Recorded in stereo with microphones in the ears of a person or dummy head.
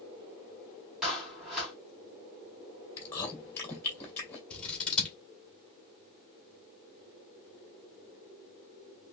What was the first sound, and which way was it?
A clap, centre (ahead or behind).